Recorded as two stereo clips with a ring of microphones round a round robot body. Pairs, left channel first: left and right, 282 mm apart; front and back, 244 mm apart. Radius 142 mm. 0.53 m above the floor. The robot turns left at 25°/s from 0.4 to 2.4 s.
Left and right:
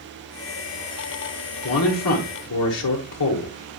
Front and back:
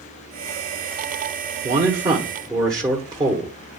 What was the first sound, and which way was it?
A man speaking, 125° left.